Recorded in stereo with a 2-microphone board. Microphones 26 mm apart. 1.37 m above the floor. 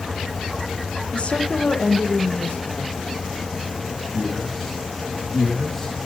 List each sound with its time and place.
1.1 s a woman speaking: 45° left (ahead or behind), 1.0 m; by 2.9 s 65° left (ahead or behind), 2 m
4.1 s a man speaking: 10° left (ahead or behind), 1.9 m